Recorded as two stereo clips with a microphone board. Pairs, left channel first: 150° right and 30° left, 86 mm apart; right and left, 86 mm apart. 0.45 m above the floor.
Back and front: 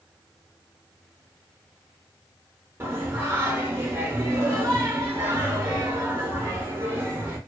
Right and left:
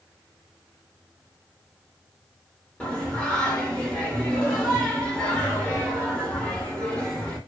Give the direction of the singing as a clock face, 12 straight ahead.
12 o'clock.